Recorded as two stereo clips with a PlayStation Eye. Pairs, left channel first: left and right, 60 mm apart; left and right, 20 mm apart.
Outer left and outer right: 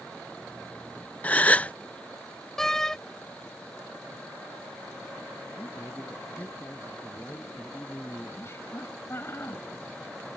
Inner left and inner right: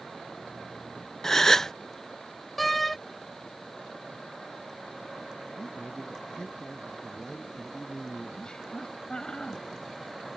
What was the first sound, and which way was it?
A gasp, 25° left (ahead or behind).